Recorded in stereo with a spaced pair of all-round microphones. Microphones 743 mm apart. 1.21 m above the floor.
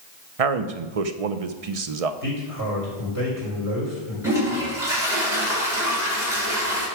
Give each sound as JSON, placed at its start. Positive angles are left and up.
{"t": 0.4, "sound": "a man speaking", "side_deg": -50, "distance_m": 0.7}
{"t": 2.2, "sound": "a man speaking", "side_deg": -25, "distance_m": 4.5}
{"t": 4.2, "sound": "a toilet flushing", "side_deg": -5, "distance_m": 4.5}